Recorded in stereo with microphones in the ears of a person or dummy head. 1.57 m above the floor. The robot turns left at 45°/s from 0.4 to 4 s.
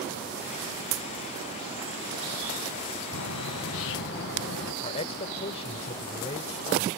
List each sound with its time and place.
3.1 s a bird: 100° left; by 4.7 s 60° left
4.8 s a man speaking: 30° left (ahead or behind)